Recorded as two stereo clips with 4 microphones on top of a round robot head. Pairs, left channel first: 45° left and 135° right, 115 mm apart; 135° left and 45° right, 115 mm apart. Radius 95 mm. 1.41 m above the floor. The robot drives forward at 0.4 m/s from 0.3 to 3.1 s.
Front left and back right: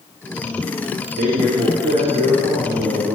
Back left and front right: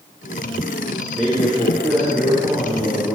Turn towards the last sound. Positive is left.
turn(degrees=-160)